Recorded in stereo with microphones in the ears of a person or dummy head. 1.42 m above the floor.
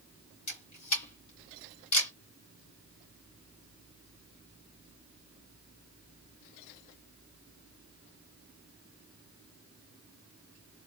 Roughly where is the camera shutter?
Left.